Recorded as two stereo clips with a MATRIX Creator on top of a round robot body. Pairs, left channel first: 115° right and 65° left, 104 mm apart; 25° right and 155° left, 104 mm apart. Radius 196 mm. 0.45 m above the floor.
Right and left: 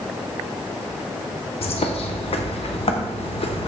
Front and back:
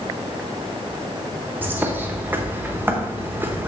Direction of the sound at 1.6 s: 130° right.